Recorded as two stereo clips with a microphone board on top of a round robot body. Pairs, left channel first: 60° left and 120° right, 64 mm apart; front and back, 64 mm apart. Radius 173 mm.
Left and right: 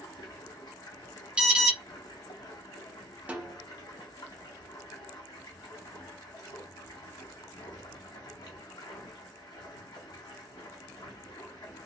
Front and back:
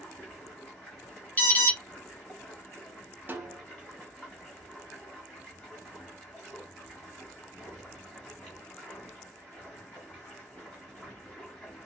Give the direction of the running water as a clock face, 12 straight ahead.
9 o'clock.